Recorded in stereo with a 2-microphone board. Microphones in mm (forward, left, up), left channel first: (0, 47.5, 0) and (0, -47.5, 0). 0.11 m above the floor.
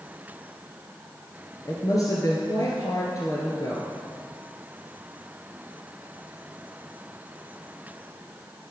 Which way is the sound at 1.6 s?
40° left (ahead or behind).